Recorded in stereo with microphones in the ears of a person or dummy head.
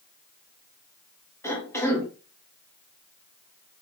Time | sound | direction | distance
1.4 | a cough | 15° left (ahead or behind) | 1.6 m